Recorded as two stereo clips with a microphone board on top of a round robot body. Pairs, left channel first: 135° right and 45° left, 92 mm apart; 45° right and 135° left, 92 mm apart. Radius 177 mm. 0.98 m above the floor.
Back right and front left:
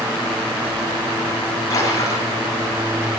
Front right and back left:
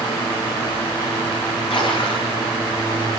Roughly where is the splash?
Right.